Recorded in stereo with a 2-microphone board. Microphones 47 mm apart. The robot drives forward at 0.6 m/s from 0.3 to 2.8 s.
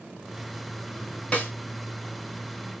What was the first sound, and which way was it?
A snare drum, 25° left (ahead or behind).